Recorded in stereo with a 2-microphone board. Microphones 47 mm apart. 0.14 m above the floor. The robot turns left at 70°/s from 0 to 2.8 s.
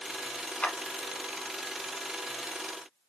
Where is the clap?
20° left (ahead or behind), 1.0 m; by 0.8 s 25° left (ahead or behind), 1.0 m.